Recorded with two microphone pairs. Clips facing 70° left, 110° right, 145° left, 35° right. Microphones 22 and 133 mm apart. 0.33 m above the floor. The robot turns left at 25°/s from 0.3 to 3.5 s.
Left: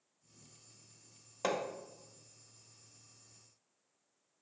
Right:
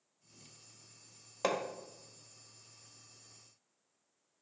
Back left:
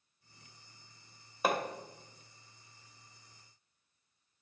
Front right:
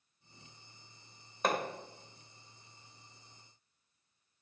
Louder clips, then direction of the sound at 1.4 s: Right 1 dB, back left 1 dB; 140° right.